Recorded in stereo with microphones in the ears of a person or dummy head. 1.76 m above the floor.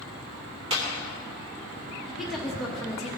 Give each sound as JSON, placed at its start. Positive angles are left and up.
{"t": 0.7, "sound": "a clap", "side_deg": -25, "distance_m": 2.5}
{"t": 2.1, "sound": "a woman speaking", "side_deg": 0, "distance_m": 0.9}